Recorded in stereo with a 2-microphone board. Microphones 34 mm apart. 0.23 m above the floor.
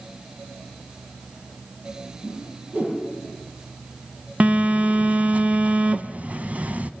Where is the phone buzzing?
45° right (ahead or behind), 1.0 m.